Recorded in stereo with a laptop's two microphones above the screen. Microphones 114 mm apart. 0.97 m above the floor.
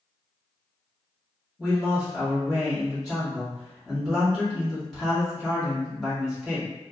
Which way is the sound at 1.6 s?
5° left (ahead or behind).